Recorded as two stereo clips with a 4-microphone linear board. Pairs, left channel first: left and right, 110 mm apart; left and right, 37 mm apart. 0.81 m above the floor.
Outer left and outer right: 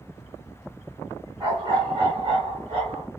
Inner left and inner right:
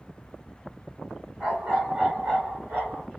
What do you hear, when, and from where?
1.4 s a dog barking: 35° right (ahead or behind), 1.6 m; by 3.1 s 60° right (ahead or behind), 2 m